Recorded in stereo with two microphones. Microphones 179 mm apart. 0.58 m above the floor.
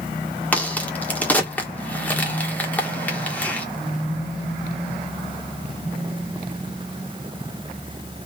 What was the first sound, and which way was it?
A crack, 10° left (ahead or behind).